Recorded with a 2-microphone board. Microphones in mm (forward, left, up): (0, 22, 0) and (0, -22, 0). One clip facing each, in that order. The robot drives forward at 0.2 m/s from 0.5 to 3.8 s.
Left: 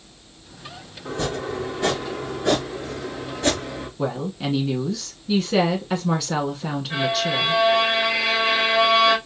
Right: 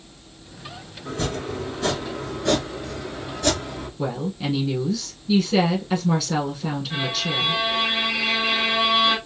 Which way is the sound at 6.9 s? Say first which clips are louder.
Left 6 dB; 40° left (ahead or behind).